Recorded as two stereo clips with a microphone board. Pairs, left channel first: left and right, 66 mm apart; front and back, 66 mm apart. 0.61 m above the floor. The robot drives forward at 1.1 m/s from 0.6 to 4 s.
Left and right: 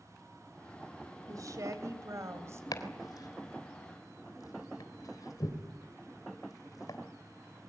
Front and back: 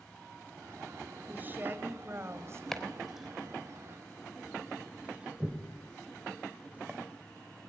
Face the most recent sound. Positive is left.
turn(degrees=110)